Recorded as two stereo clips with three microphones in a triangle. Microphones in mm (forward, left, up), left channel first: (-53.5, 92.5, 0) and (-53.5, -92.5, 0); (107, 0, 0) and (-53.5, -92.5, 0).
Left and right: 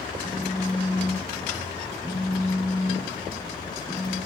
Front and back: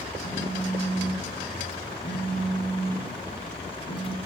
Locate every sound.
0.2 s a phone buzzing: 10° left, 3 m